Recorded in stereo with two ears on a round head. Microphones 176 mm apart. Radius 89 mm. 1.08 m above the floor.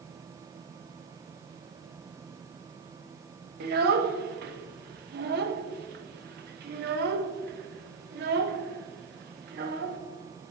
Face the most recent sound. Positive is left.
turn(degrees=-50)  # may be behind; listen again after turning